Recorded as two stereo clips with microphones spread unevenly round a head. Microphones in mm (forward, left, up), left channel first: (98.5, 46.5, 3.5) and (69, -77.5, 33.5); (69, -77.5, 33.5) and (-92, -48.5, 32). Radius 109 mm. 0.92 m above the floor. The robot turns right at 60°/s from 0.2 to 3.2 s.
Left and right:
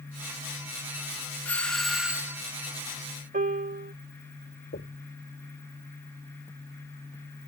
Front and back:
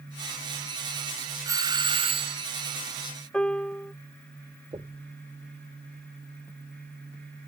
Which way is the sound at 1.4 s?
120° left.